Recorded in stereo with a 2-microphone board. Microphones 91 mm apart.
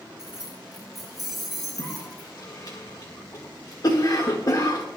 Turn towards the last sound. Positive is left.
turn(degrees=50)  # may be behind; listen again after turning